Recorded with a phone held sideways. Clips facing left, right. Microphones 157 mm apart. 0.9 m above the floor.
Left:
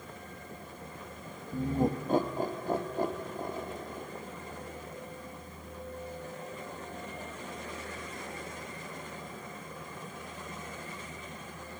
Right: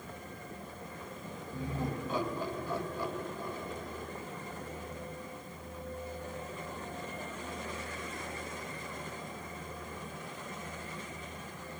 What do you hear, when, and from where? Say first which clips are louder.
1.5 s laughter: left 8 dB; 45° left (ahead or behind), 1.4 m